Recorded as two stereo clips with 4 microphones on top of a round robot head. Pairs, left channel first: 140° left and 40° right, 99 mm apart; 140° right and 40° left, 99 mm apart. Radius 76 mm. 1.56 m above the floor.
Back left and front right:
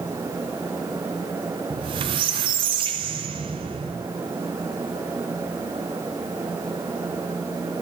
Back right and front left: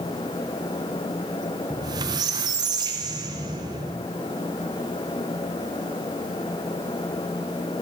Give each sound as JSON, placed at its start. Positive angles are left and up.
{"t": 1.7, "sound": "a squeak", "azimuth_deg": -5, "distance_m": 0.7}